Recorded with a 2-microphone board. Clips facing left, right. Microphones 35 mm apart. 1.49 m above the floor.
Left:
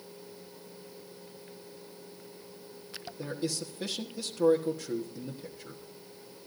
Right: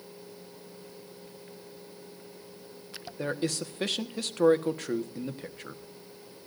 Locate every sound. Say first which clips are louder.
3.2 s a man speaking: right 4 dB; 60° right (ahead or behind), 1.4 m